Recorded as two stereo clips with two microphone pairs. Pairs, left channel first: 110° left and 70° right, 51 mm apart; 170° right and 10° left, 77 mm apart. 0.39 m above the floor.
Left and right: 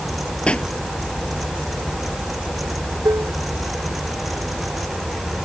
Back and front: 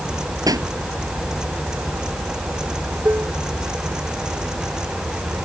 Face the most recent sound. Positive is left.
turn(degrees=-50)